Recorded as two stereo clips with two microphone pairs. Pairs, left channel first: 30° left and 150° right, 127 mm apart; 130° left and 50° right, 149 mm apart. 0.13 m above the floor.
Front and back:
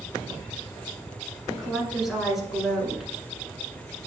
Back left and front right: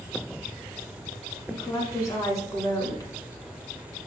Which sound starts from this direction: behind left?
A woman speaking, at 1.5 s.